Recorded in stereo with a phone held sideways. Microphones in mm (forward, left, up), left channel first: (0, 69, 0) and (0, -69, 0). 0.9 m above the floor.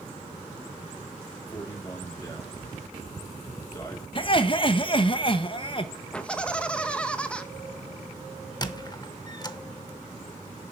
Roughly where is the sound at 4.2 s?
Left.